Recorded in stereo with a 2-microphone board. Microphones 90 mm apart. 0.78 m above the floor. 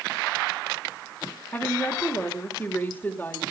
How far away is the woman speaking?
About 3 m.